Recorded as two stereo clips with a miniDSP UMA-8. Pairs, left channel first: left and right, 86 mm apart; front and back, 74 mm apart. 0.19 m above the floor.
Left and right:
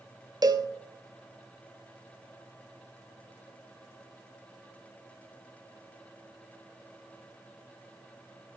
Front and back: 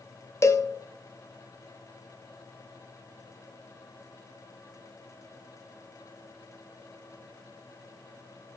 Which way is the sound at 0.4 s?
50° right.